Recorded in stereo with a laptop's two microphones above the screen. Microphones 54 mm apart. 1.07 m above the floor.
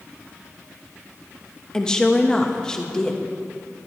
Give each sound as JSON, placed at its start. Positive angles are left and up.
{"t": 1.7, "sound": "a woman speaking", "side_deg": 10, "distance_m": 1.1}